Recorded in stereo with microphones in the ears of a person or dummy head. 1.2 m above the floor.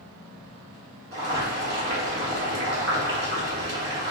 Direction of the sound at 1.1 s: 60° right (ahead or behind).